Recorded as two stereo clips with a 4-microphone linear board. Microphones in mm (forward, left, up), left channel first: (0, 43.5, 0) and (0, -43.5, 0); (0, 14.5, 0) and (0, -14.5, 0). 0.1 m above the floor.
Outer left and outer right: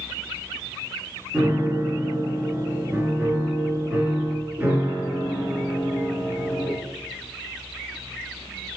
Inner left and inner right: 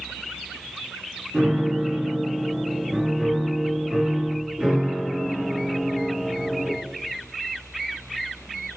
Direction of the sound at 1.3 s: 20° right (ahead or behind).